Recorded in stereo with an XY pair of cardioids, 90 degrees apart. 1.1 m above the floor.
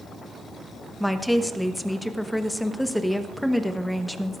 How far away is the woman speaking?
About 1.2 m.